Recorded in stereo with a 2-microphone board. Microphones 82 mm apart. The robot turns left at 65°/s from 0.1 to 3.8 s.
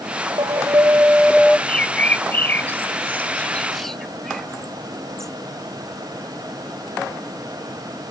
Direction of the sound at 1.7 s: 15° left (ahead or behind).